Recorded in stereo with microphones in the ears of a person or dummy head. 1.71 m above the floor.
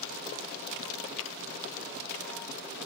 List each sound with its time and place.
1.2 s tapping: 70° left (ahead or behind), 0.8 m